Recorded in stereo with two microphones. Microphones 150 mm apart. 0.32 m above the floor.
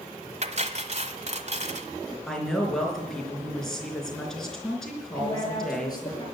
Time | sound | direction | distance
0.4 | cutlery clinking | 50° right (ahead or behind) | 1.1 m
2.3 | a woman speaking | 5° left (ahead or behind) | 4 m
5.2 | a woman speaking | 25° left (ahead or behind) | 6 m